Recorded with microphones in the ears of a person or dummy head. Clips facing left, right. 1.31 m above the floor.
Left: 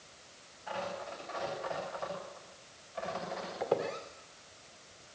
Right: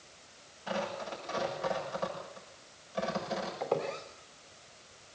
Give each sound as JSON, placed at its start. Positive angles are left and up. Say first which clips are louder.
{"t": 0.7, "sound": "tearing paper", "louder": "right 3 dB", "side_deg": -55, "distance_m": 9.0}
{"t": 3.6, "sound": "a squeak", "louder": "left 2 dB", "side_deg": 5, "distance_m": 2.5}